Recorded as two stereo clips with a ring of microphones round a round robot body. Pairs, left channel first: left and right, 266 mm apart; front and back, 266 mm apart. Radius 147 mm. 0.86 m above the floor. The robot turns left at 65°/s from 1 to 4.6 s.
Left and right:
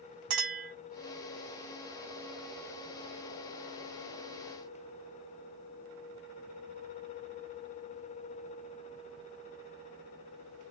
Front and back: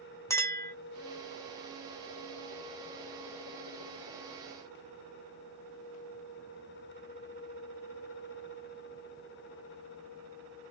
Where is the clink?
80° right, 1.0 m.